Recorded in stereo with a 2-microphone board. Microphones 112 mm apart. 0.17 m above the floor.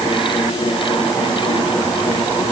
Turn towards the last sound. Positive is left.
No sound to turn to.